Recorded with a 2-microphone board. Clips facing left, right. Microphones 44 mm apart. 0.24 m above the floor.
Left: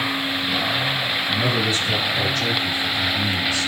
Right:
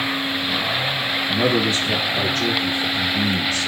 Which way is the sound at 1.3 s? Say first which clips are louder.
Right 4 dB; 40° right (ahead or behind).